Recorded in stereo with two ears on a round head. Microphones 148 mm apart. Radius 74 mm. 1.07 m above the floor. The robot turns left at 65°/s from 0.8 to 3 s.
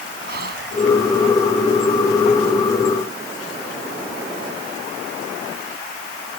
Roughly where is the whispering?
Right.